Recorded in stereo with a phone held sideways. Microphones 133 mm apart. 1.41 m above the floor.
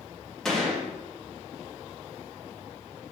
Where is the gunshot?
5° left (ahead or behind), 2.5 m.